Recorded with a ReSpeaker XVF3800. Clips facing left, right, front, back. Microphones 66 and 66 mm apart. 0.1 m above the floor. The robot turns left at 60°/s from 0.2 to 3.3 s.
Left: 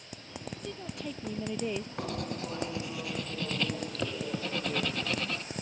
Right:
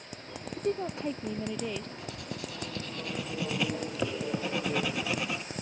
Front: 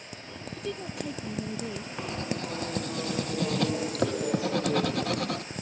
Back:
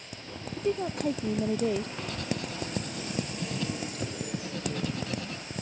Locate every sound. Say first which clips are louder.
0.6 s a woman speaking: right 14 dB, back 7 dB; 120° right; by 1.9 s 160° left
2.0 s writing: left 4 dB, front 1 dB; 70° left; by 5.4 s 10° right